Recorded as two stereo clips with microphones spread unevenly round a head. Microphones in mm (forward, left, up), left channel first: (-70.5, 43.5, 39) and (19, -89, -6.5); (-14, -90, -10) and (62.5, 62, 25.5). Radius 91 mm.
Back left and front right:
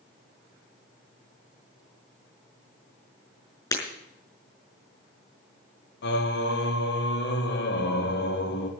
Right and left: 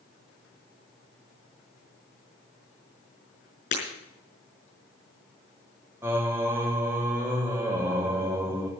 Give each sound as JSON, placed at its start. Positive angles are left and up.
{"t": 3.7, "sound": "breaking glass", "azimuth_deg": -170, "distance_m": 6.0}
{"t": 6.0, "sound": "singing", "azimuth_deg": 140, "distance_m": 1.5}